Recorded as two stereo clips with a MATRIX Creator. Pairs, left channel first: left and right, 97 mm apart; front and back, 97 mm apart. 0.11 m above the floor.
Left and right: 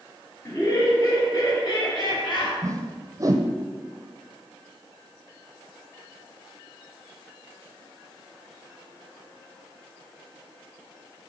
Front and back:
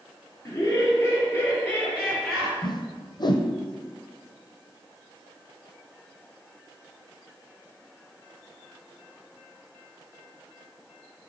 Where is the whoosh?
35° right, 0.7 m.